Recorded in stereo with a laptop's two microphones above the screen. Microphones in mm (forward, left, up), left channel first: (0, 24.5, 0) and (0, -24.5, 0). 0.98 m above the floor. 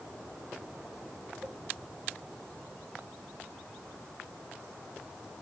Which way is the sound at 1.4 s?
40° right (ahead or behind).